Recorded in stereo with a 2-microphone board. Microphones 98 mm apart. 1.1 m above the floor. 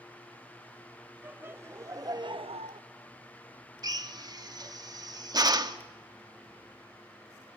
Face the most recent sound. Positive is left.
turn(degrees=-40)  # may be behind; listen again after turning